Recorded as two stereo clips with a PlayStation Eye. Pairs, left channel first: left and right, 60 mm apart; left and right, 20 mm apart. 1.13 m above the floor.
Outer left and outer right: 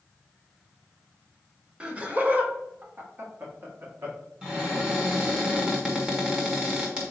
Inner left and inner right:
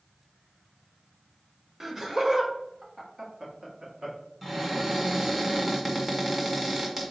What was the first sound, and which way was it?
Laughter, 20° right (ahead or behind).